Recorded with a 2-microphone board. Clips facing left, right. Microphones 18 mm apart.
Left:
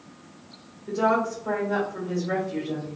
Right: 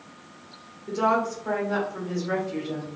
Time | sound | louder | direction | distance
0.9 | a woman speaking | even | 20° right (ahead or behind) | 0.9 m